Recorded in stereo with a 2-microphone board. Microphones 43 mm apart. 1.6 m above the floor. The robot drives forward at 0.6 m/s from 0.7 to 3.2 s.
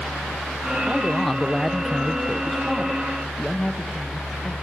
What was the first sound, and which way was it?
A man speaking, 5° left (ahead or behind).